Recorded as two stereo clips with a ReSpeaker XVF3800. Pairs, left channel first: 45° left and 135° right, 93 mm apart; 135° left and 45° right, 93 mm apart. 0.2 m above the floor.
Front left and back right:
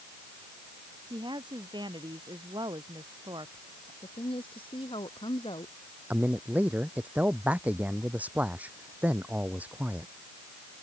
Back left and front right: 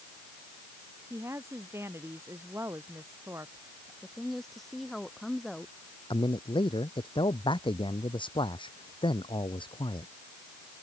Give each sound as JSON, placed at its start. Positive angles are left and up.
{"t": 1.1, "sound": "a woman speaking", "azimuth_deg": -105}
{"t": 4.0, "sound": "a woman speaking", "azimuth_deg": 45}
{"t": 6.1, "sound": "a man speaking", "azimuth_deg": 150}